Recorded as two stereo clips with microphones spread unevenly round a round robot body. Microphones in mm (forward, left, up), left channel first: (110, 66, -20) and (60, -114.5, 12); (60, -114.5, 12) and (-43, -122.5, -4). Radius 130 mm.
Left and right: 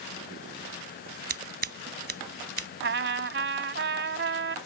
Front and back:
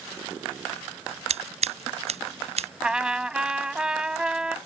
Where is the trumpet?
90° right.